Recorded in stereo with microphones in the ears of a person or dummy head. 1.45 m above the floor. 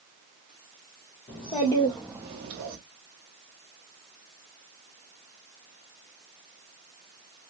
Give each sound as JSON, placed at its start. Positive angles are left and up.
{"t": 1.3, "sound": "a child speaking", "side_deg": 35, "distance_m": 1.1}